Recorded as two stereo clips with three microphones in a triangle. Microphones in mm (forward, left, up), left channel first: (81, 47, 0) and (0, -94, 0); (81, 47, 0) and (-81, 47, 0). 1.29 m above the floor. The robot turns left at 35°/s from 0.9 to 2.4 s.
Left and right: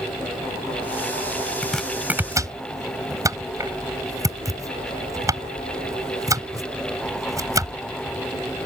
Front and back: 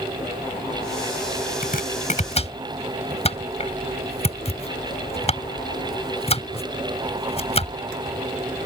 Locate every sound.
1.6 s chopping: 25° right; by 7.8 s 50° right